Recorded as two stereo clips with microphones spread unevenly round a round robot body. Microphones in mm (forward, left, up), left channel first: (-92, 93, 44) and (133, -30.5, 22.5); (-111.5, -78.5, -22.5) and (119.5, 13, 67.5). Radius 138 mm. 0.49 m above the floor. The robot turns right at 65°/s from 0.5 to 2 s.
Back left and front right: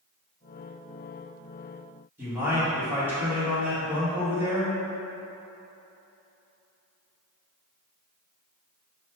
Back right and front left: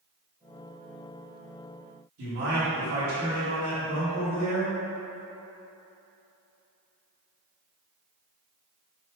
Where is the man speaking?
40° left, 1.6 m.